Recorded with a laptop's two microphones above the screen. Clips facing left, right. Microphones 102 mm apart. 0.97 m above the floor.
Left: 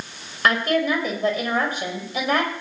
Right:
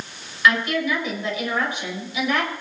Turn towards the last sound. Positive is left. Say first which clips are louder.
# left 1 dB
turn(degrees=45)  # may be behind; listen again after turning